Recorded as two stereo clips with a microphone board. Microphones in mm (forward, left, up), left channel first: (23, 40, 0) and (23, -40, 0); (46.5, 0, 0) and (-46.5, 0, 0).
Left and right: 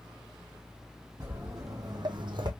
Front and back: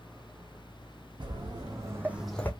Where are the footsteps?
145° right, 1.5 m; by 2.5 s 70° right, 0.7 m.